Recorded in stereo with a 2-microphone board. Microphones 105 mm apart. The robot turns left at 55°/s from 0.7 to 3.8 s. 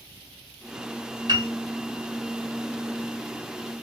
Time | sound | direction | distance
1.3 | a piano | 40° right (ahead or behind) | 0.9 m